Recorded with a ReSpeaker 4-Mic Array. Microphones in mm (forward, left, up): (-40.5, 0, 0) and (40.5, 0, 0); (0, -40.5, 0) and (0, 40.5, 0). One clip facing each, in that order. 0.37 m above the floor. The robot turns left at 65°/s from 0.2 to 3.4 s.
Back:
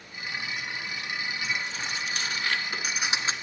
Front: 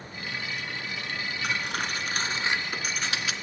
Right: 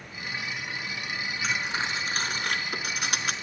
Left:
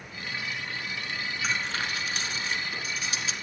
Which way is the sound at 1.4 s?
Straight ahead.